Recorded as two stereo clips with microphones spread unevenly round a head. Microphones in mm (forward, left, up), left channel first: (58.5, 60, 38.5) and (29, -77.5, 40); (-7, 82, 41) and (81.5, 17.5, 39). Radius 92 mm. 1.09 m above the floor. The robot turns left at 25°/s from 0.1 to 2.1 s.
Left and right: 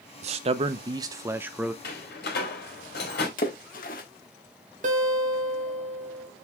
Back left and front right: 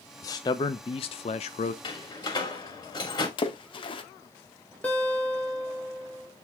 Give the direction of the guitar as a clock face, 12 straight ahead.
5 o'clock.